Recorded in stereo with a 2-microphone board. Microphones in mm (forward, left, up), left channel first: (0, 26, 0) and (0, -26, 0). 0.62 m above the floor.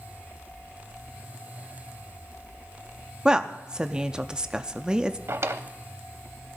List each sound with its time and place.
3.2 s a woman speaking: 15° right (ahead or behind), 0.5 m
5.3 s a drawer: 60° right (ahead or behind), 0.7 m